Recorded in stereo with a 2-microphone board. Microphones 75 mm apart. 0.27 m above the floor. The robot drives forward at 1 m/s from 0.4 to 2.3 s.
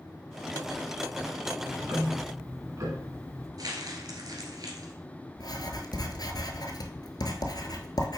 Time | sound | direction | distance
1.6 | ticking | 60° right (ahead or behind) | 1.3 m
3.6 | crumpling | 60° right (ahead or behind) | 1.5 m
5.4 | writing | 65° left (ahead or behind) | 0.9 m